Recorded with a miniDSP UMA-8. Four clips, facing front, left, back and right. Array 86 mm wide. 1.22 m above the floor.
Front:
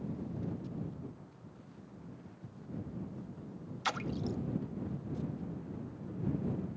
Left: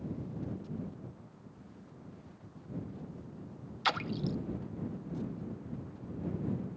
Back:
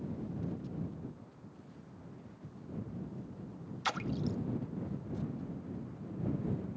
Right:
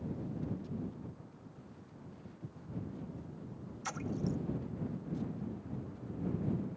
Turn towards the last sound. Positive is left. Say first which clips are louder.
# left 4 dB, even
turn(degrees=90)